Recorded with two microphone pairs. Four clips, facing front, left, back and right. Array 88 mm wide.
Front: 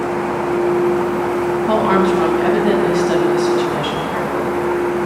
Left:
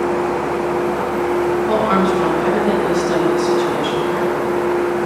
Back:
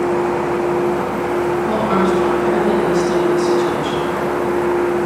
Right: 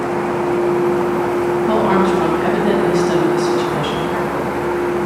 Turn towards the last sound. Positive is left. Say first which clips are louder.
# right 3 dB, front 4 dB
turn(degrees=-30)